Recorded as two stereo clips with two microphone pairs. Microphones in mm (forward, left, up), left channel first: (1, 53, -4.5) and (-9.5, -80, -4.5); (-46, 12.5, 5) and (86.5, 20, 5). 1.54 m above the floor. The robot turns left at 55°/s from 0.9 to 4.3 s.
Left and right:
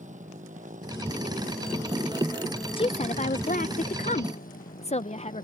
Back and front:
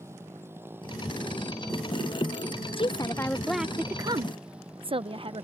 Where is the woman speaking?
135° left; by 5.5 s 50° left.